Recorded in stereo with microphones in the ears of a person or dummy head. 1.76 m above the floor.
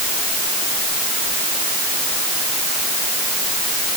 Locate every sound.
Only background noise.